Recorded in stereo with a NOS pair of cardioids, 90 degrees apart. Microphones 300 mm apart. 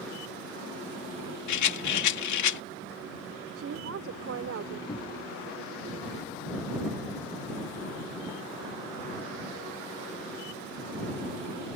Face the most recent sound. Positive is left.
turn(degrees=25)